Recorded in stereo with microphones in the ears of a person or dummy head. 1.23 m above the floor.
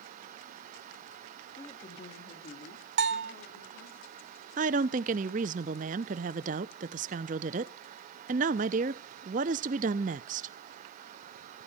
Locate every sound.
1.6 s a woman speaking: 15° left (ahead or behind), 2.0 m; by 4.0 s 70° left (ahead or behind), 3.5 m
3.0 s a bell: 60° right (ahead or behind), 0.7 m
4.6 s a woman speaking: 40° right (ahead or behind), 0.6 m